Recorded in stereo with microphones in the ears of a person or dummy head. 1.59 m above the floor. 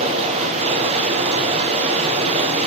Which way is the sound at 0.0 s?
30° right (ahead or behind).